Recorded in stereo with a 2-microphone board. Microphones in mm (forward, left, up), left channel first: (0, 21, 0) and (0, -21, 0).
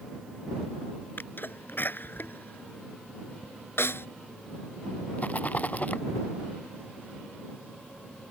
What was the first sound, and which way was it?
A sneeze, 55° left (ahead or behind).